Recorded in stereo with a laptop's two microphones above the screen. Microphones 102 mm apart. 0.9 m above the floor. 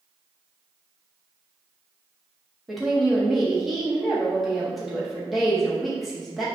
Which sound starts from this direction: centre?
A woman speaking, at 2.7 s.